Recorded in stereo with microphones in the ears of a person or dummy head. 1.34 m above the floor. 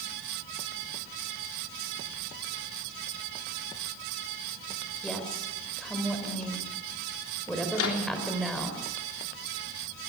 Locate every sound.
5.0 s a woman speaking: 5° left (ahead or behind), 5 m
7.7 s a microwave: 85° left, 3.5 m